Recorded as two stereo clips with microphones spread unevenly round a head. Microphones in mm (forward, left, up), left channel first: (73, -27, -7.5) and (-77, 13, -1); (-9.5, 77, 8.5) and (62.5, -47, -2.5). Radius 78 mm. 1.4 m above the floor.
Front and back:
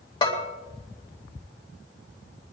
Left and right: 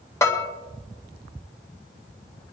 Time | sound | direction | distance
0.2 | a bell | 50° left | 2.5 m